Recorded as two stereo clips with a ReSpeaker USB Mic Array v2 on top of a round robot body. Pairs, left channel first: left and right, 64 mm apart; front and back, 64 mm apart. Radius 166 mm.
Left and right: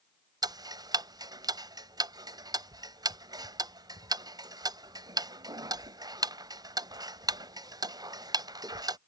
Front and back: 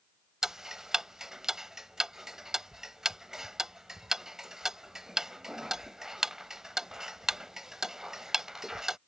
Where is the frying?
No frying in this recording.